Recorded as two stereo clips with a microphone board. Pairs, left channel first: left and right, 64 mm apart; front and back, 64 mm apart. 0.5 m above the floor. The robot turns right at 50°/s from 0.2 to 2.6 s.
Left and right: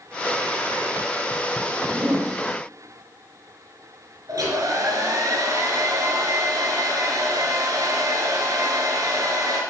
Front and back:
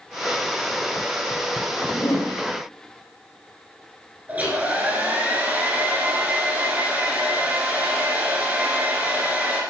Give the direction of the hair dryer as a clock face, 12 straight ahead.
4 o'clock.